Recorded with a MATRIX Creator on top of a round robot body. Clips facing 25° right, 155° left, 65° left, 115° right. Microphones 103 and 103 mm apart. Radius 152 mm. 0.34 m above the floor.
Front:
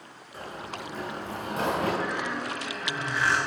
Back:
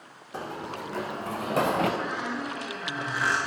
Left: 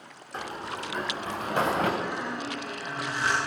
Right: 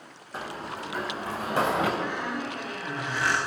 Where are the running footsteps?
160° left, 1.3 m; by 1.9 s 170° left, 2.5 m.